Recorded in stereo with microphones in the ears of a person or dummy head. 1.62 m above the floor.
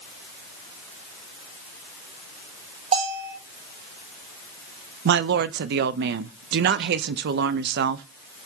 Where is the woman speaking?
65° right (ahead or behind), 0.7 m.